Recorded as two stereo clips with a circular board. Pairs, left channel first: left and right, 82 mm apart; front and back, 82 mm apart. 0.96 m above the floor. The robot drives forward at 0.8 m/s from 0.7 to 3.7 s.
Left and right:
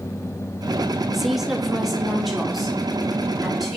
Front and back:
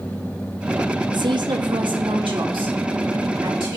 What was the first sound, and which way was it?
A woman speaking, 175° right.